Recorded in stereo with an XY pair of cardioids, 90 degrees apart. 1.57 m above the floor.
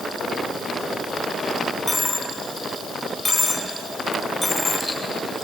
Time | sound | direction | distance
1.9 | a dropped coin | 20° left | 4.5 m